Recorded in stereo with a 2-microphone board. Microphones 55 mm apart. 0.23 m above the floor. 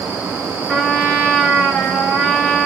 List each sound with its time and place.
0.7 s a trumpet: 15° left (ahead or behind), 2.5 m